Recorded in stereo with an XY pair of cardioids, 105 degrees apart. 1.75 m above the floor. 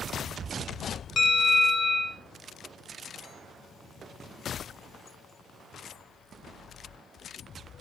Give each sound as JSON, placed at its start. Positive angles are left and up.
{"t": 1.2, "sound": "a bell", "azimuth_deg": 35, "distance_m": 1.8}